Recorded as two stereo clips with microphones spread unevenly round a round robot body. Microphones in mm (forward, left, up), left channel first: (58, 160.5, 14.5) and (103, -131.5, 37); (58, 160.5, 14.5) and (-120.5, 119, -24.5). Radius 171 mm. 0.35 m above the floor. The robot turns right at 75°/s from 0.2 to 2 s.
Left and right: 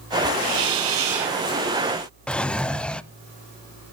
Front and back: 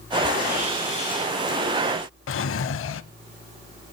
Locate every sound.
0.4 s a hiss: 120° right, 3.5 m; by 1.4 s 45° right, 3.5 m
2.3 s a drawer: 10° left, 0.7 m